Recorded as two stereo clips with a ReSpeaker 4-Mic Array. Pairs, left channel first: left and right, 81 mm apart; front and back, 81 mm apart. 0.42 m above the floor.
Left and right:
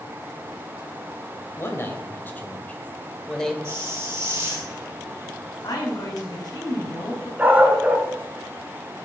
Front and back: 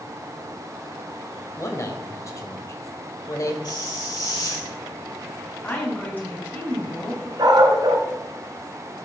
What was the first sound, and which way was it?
A man speaking, 40° left.